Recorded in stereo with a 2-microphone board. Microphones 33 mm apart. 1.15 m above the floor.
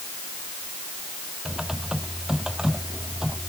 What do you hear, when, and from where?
1.4 s typing on a keyboard: 15° right (ahead or behind)